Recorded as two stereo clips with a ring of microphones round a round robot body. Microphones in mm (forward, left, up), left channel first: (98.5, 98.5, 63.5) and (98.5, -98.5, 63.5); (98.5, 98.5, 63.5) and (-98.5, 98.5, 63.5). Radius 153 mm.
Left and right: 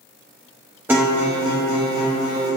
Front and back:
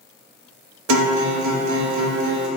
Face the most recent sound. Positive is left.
turn(degrees=-175)